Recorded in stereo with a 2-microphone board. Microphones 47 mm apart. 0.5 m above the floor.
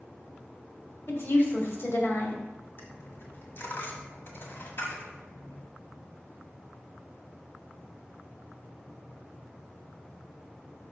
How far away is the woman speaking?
About 2 m.